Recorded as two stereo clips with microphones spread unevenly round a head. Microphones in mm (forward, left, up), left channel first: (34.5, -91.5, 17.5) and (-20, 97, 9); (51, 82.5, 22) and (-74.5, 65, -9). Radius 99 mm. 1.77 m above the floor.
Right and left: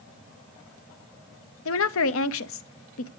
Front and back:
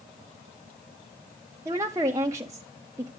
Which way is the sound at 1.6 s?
90° right.